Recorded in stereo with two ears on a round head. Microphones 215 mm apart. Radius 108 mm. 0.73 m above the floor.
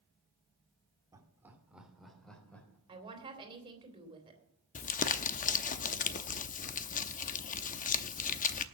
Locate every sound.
1.1 s laughter: 15° right (ahead or behind), 2 m; by 2.8 s 10° left (ahead or behind), 3.5 m
2.9 s a woman speaking: 20° right (ahead or behind), 3.5 m
4.8 s crumpling: 35° left (ahead or behind), 0.7 m